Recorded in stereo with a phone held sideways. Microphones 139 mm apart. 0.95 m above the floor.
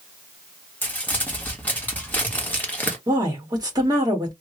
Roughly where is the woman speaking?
Right.